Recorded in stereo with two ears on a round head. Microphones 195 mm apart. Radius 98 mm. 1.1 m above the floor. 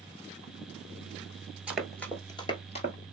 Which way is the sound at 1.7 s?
5° right (ahead or behind).